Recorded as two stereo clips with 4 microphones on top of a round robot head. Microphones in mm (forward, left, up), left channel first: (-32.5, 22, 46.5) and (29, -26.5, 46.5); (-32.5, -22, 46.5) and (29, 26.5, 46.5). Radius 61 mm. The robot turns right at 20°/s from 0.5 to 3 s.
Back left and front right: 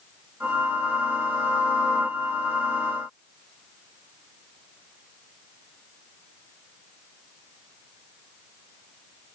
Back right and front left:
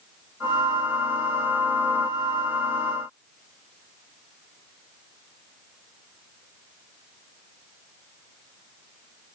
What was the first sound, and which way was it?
Only background noise.